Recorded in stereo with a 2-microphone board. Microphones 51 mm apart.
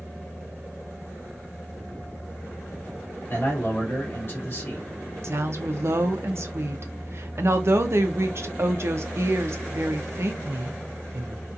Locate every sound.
3.3 s a man speaking: 45° left (ahead or behind), 1.1 m
5.2 s a woman speaking: 60° right (ahead or behind), 0.6 m